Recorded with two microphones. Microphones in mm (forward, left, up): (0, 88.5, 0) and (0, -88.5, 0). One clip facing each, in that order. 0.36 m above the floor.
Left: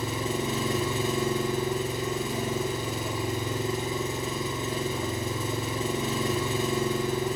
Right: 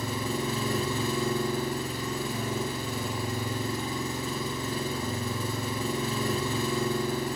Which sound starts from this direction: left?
An engine running, at 0.0 s.